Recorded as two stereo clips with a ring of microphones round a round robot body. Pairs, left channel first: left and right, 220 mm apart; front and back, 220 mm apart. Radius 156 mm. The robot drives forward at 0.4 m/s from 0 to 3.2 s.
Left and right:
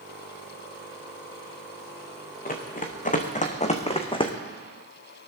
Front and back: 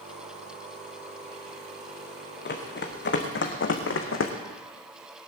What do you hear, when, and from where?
2.5 s running footsteps: 40° left, 3 m; by 4.3 s 20° left, 2 m